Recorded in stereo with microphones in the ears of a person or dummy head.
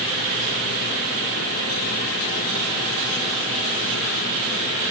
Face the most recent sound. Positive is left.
No sound to turn to.